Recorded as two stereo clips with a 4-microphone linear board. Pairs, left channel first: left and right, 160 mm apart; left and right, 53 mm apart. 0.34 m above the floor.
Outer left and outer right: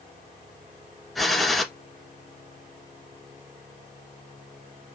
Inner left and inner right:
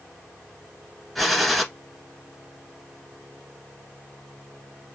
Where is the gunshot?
Centre (ahead or behind), 1.1 m.